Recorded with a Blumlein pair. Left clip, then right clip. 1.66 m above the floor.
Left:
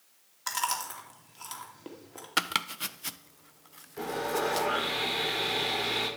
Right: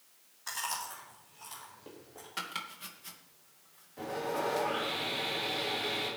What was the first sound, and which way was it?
Chewing, 30° left.